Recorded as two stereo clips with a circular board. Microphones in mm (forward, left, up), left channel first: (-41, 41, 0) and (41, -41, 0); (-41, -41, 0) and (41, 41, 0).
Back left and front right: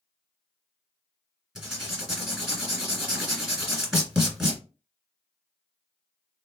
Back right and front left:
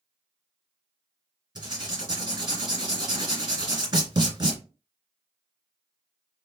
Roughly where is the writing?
Ahead left.